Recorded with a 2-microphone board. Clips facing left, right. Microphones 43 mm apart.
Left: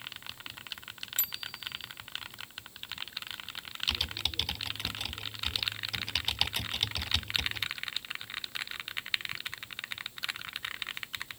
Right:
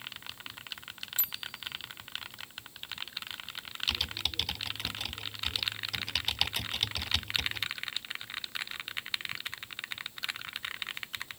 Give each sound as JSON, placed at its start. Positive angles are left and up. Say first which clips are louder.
{"t": 1.2, "sound": "a bicycle bell", "louder": "left 1 dB", "side_deg": 55}
{"t": 3.9, "sound": "typing on a keyboard", "louder": "even", "side_deg": 0}